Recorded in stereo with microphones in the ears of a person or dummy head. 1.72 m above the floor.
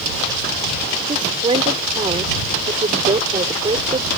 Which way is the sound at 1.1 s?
30° right (ahead or behind).